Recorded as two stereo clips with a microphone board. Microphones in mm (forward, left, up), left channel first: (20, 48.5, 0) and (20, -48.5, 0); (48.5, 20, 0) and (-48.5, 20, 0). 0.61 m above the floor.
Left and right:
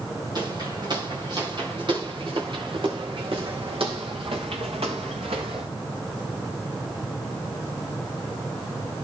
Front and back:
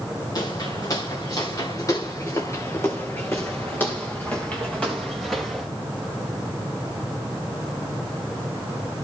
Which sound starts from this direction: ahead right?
Footsteps, at 0.3 s.